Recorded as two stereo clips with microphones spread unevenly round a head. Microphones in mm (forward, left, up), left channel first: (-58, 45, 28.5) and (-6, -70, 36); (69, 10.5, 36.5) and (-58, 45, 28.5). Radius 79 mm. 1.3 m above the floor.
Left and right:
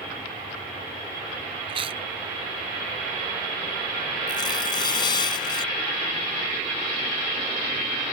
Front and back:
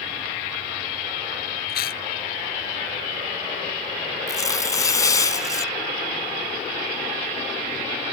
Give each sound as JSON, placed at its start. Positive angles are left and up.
{"t": 1.7, "sound": "chewing", "azimuth_deg": -10}
{"t": 4.3, "sound": "tearing paper", "azimuth_deg": 50}